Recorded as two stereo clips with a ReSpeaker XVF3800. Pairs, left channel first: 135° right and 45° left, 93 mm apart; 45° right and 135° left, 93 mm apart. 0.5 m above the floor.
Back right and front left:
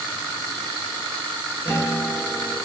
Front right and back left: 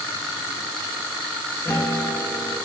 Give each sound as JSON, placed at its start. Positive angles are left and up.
{"t": 1.6, "sound": "a guitar", "azimuth_deg": -90, "distance_m": 1.0}